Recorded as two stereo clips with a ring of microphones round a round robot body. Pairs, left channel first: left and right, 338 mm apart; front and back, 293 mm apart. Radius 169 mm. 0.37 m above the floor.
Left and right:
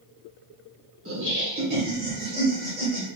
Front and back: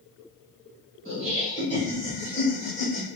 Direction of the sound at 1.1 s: 105° right.